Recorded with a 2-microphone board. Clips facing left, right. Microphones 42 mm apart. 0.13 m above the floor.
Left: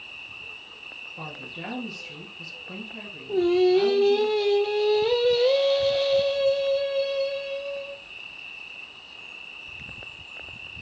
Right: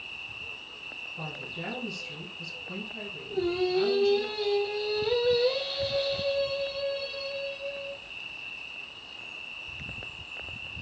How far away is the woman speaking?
About 2 m.